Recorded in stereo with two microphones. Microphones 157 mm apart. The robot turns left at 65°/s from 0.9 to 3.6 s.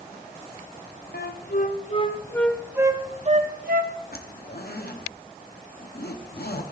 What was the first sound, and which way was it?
A flute, 85° left.